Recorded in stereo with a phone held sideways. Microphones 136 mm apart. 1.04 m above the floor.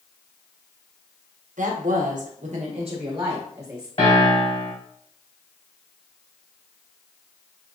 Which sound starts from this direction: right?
A woman speaking, at 1.6 s.